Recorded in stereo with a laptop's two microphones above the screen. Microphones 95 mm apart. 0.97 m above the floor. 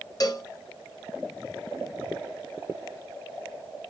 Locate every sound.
0.2 s a cowbell: 40° left (ahead or behind), 0.6 m